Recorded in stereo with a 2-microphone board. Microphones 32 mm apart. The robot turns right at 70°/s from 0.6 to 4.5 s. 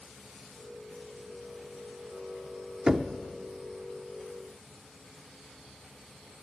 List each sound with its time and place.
2.9 s knocking: 30° right (ahead or behind), 0.6 m; by 3.1 s 10° right (ahead or behind), 0.6 m